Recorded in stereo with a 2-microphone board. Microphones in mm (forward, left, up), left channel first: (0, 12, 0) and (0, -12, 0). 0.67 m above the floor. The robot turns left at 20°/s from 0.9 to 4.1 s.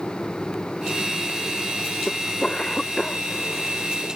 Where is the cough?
60° left (ahead or behind); by 4.1 s 20° left (ahead or behind).